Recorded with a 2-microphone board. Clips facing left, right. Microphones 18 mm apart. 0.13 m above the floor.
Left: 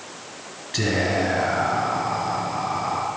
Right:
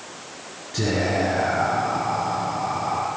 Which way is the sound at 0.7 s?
35° left (ahead or behind).